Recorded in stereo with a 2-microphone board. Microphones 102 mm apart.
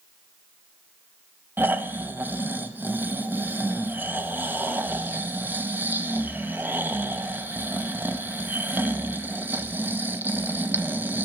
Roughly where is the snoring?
Centre.